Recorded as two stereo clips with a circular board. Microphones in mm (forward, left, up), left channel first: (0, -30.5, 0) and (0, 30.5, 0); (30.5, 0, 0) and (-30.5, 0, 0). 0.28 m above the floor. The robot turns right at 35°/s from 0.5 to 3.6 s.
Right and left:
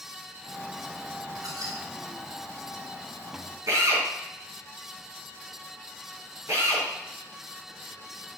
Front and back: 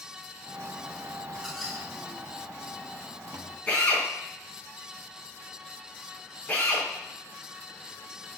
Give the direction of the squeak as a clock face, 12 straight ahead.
9 o'clock.